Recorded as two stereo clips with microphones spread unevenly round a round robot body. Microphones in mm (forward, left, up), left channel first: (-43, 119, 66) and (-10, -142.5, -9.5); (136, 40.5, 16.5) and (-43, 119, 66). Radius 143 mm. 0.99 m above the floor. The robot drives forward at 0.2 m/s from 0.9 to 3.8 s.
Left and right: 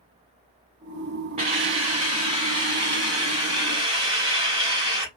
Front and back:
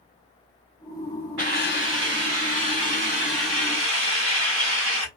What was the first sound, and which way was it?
A hiss, 155° right.